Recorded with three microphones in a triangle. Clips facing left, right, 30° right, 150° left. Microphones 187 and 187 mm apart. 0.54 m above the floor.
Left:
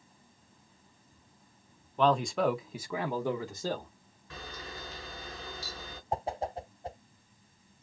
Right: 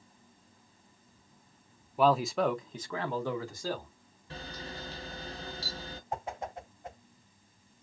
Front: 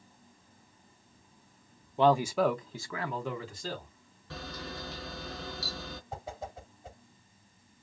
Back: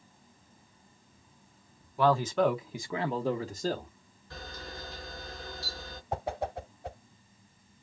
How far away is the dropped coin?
No dropped coin in this recording.